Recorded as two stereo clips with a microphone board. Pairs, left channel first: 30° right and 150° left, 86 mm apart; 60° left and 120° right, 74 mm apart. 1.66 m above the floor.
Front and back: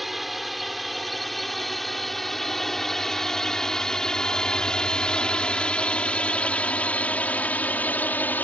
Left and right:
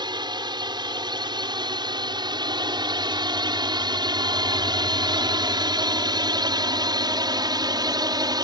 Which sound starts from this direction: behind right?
A drone, at 0.0 s.